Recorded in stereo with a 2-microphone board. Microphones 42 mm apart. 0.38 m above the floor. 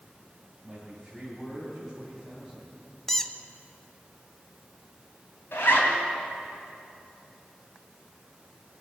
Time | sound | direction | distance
0.6 | a man speaking | centre (ahead or behind) | 3.5 m
3.1 | a squeak | 10° left (ahead or behind) | 0.7 m
5.5 | a zipper | 65° left (ahead or behind) | 3 m